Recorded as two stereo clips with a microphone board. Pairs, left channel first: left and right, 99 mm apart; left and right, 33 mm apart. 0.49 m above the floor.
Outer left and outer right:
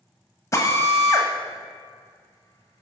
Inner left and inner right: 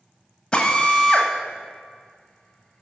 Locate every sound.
0.5 s a drill: 30° left (ahead or behind), 1.3 m